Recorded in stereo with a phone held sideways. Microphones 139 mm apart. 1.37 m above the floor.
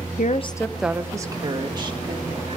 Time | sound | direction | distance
0.2 | a woman speaking | 70° left (ahead or behind) | 0.6 m